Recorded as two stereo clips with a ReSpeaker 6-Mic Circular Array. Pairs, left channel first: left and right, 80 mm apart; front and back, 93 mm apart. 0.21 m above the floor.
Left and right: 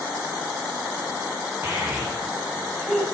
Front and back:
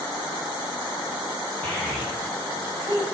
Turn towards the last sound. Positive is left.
turn(degrees=160)